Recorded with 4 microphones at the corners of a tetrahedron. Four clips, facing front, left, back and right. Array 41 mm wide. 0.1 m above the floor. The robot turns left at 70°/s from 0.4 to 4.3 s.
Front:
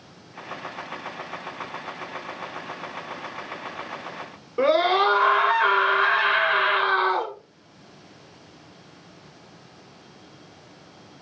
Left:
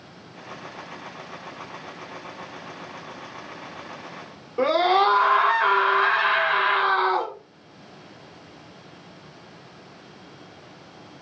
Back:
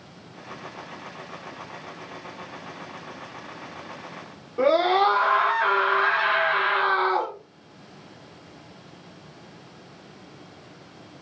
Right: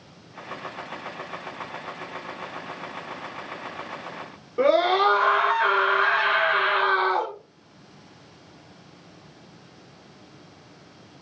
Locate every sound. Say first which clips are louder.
4.6 s a scream: even, even; straight ahead, 1.2 m